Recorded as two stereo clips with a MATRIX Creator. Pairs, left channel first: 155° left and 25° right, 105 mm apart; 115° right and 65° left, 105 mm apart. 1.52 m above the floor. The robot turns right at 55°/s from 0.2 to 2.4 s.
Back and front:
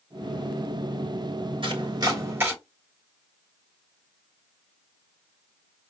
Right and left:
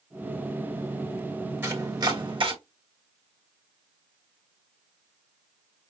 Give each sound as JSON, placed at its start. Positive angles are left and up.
{"t": 1.6, "sound": "chopping", "azimuth_deg": 0, "distance_m": 1.3}